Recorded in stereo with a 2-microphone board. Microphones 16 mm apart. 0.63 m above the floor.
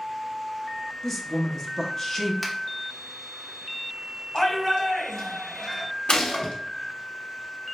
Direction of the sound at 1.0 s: 20° left (ahead or behind).